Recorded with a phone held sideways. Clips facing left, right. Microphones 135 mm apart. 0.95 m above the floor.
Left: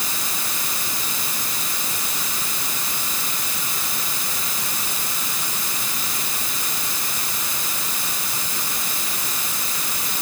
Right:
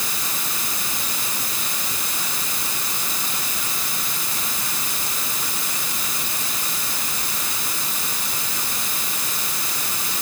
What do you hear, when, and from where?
Only background noise.